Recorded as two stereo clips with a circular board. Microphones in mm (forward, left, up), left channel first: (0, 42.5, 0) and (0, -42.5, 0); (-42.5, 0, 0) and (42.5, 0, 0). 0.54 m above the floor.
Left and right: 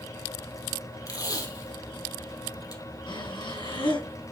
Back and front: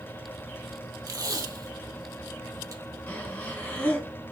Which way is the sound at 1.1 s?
50° left.